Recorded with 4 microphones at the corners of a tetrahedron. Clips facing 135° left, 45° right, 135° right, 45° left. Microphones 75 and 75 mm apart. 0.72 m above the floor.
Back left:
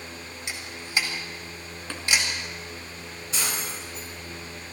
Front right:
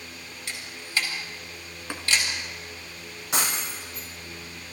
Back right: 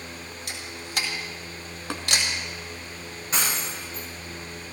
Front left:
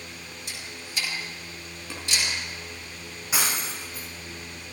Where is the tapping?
120° right, 1.8 m.